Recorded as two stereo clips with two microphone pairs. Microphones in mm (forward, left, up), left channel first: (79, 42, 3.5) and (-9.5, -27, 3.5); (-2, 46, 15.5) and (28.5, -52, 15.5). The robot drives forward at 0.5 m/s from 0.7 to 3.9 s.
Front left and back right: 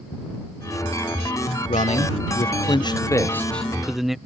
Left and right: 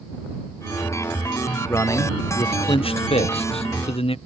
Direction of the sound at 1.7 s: 40° left.